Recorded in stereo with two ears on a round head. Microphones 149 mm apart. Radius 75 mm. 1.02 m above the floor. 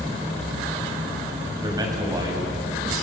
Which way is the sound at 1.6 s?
25° right (ahead or behind).